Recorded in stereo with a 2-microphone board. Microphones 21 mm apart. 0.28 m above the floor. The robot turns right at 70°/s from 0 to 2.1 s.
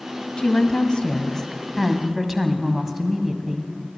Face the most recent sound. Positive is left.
turn(degrees=-155)